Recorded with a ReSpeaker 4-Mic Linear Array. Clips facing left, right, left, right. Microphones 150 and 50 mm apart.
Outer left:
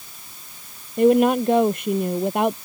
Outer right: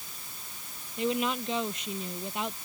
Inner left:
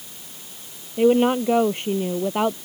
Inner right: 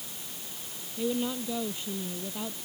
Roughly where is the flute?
I don't hear a flute.